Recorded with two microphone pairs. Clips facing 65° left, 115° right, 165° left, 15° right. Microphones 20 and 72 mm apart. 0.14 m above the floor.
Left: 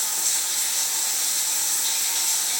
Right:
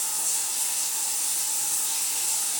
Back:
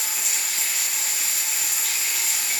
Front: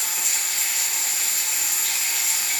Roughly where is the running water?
Left.